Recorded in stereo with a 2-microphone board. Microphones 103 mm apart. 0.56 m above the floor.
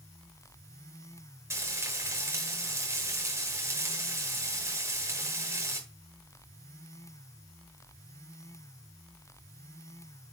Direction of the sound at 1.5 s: 30° right (ahead or behind).